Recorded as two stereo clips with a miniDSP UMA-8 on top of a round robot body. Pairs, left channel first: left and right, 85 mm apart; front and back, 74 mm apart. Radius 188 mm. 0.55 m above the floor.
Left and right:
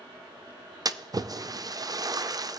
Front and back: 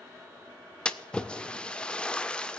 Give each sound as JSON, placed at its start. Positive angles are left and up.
{"t": 0.8, "sound": "a splash", "azimuth_deg": -75, "distance_m": 0.7}